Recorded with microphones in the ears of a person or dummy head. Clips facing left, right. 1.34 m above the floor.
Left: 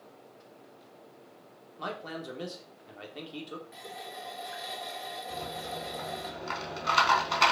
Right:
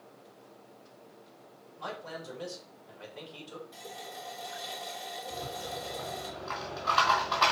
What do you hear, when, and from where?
1.8 s a man speaking: 75° left (ahead or behind), 3 m
3.7 s a running tap: 30° left (ahead or behind), 2.5 m
5.3 s a rattle: 35° left (ahead or behind), 4 m